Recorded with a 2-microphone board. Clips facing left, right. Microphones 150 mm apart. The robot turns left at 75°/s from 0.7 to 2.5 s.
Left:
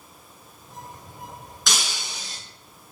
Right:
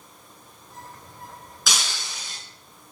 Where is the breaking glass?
Straight behind, 4.5 m; by 2.4 s 125° left, 4.5 m.